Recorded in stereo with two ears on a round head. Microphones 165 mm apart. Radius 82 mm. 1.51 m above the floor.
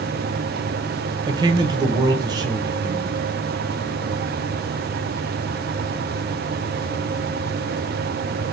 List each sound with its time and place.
1.3 s a man speaking: 20° right (ahead or behind), 0.8 m